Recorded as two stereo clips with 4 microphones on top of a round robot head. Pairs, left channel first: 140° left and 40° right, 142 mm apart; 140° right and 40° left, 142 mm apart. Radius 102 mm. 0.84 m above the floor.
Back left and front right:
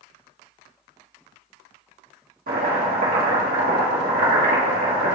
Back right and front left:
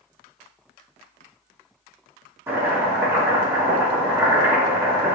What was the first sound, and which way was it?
Chopping, 35° right.